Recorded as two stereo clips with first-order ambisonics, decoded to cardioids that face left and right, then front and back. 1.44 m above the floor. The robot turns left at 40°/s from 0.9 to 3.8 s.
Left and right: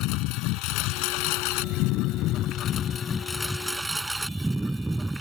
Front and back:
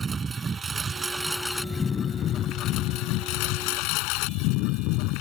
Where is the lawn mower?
110° left; by 5.2 s 10° right.